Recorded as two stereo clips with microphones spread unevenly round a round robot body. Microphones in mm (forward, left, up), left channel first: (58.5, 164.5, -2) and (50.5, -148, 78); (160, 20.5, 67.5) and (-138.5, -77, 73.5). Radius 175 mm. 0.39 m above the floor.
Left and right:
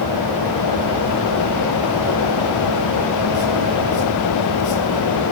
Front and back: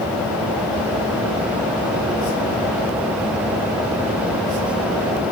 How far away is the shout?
I don't hear a shout.